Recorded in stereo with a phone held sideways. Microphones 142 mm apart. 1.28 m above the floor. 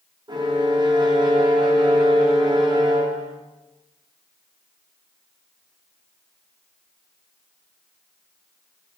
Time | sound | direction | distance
0.3 | a violin | 30° right (ahead or behind) | 0.6 m